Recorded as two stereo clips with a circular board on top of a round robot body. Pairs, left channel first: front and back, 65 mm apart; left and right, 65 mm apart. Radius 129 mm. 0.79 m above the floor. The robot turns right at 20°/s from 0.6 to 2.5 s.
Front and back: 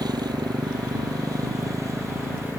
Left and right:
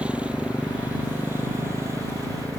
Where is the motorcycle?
160° right; by 2.6 s 125° right.